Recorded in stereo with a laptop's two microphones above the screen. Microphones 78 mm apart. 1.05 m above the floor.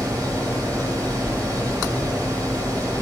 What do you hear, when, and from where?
0.0 s a fan: 50° right (ahead or behind), 1.5 m